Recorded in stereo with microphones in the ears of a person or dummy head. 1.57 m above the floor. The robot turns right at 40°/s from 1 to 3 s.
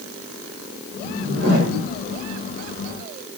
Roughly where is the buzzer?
No buzzer in this recording.